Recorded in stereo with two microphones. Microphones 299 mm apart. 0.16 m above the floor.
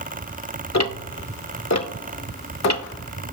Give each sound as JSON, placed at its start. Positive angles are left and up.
{"t": 0.7, "sound": "ticking", "side_deg": 65, "distance_m": 0.5}